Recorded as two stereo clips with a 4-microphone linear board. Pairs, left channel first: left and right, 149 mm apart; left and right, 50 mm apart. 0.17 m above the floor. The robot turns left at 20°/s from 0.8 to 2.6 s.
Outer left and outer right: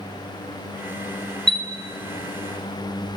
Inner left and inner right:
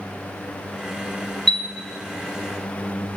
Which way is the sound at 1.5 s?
5° left (ahead or behind).